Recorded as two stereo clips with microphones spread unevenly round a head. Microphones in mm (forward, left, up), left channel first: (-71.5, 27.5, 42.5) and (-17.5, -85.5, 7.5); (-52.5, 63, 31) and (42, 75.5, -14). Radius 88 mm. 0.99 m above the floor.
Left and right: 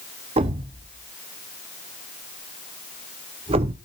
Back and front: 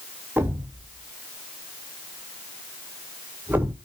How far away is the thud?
About 0.7 m.